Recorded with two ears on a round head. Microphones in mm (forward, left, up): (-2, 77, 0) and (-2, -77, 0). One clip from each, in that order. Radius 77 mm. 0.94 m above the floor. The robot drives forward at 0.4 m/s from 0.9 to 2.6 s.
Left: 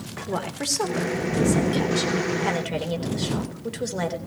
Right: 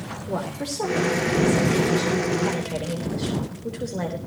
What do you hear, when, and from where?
0.3 s a woman speaking: 55° left (ahead or behind), 2.5 m; by 4.2 s 45° left (ahead or behind), 3 m